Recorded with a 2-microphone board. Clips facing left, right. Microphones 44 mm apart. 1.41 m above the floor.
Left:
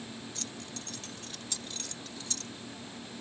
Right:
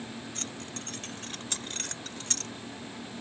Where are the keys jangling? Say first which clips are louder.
Right 3 dB; 45° right (ahead or behind); by 2.5 s 60° right (ahead or behind).